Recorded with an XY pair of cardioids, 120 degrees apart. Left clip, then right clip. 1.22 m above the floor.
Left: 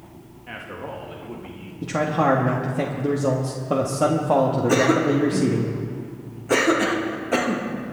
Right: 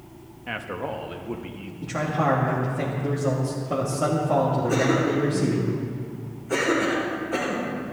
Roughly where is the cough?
Ahead left.